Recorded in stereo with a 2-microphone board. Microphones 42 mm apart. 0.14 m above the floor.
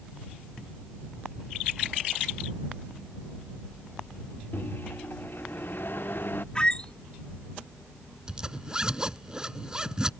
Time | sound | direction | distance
4.5 | a microwave | 60° left (ahead or behind) | ?
6.5 | a squeak | 25° left (ahead or behind) | ?
8.3 | a zipper | 20° right (ahead or behind) | ?